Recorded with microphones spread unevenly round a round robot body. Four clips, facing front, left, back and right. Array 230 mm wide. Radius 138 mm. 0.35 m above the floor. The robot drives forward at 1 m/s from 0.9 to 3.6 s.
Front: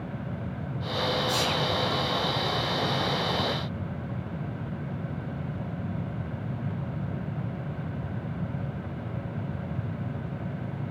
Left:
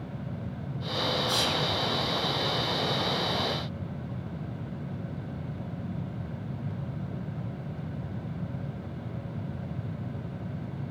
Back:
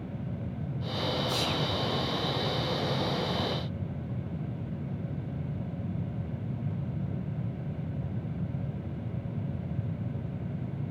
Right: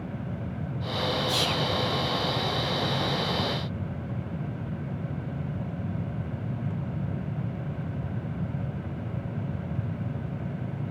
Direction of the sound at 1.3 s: 30° left.